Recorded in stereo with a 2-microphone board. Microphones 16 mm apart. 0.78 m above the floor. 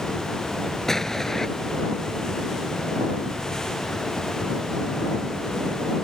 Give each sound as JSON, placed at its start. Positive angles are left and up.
{"t": 0.9, "sound": "an explosion", "side_deg": 20}